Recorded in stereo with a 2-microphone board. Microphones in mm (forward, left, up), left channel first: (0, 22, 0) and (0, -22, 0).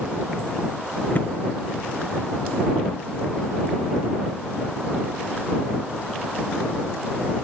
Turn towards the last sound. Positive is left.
turn(degrees=45)  # may be behind; listen again after turning